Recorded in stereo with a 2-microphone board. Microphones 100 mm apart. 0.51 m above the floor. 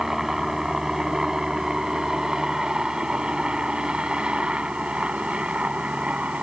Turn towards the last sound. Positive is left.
turn(degrees=-15)  # may be behind; listen again after turning